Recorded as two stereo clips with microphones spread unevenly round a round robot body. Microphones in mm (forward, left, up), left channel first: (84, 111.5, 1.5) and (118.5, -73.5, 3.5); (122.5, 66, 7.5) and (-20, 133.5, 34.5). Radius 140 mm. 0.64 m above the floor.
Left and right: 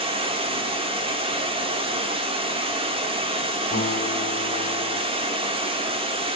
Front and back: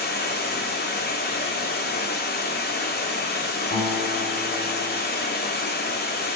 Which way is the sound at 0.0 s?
15° right.